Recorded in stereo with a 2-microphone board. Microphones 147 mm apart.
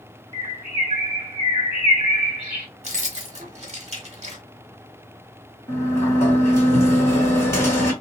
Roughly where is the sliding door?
Centre.